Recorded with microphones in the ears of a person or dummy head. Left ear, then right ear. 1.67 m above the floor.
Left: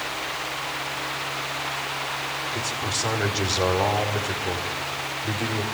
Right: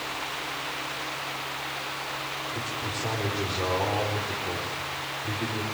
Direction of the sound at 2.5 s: 45° left (ahead or behind).